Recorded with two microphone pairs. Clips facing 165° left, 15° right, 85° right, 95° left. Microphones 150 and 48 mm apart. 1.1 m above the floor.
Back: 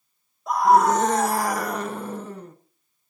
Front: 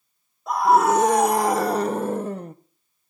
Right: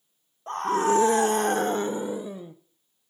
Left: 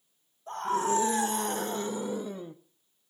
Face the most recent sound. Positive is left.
turn(degrees=10)